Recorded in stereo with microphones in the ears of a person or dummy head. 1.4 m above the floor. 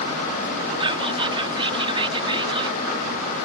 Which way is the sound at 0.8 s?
35° right (ahead or behind).